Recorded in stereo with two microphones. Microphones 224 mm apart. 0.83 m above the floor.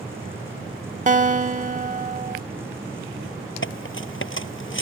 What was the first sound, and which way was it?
A guitar, 35° right (ahead or behind).